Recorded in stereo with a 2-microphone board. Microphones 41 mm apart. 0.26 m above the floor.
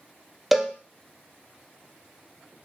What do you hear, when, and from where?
0.5 s a cowbell: 5° right (ahead or behind), 0.5 m